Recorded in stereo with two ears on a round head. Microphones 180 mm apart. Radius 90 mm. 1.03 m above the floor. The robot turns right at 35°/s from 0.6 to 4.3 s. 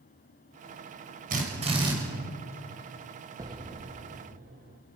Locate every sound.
1.3 s a drill: 40° right (ahead or behind), 6 m; by 1.9 s 20° right (ahead or behind), 6 m
3.4 s an explosion: 160° right, 1.6 m; by 4.8 s 130° right, 1.6 m